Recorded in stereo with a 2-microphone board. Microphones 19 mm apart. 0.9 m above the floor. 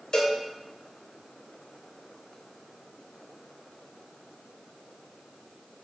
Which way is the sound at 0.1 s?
40° left (ahead or behind).